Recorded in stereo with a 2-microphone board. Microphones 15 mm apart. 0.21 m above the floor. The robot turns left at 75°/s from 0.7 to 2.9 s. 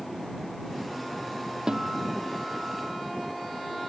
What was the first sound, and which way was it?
A guitar, 50° right.